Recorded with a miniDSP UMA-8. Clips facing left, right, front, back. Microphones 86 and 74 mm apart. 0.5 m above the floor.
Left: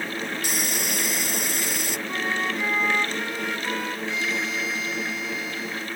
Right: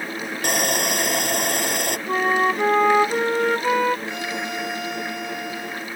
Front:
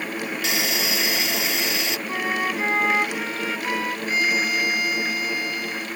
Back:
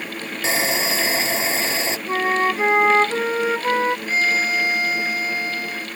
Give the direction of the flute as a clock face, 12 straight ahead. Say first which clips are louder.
Right 9 dB, back 7 dB; 4 o'clock.